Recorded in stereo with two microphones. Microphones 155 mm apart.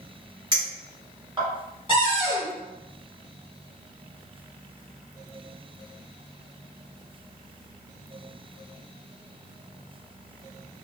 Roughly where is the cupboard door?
Right.